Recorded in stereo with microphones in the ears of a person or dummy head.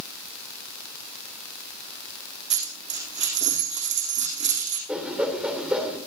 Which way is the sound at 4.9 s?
5° right (ahead or behind).